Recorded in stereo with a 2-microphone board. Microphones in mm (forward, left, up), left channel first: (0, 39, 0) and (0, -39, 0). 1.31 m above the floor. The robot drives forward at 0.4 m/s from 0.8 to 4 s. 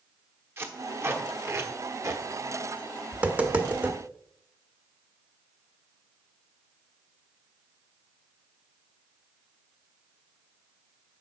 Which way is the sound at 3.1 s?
20° right (ahead or behind).